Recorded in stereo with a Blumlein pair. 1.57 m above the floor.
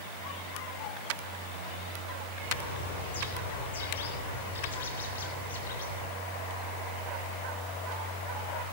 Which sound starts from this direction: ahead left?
A bird, at 2.4 s.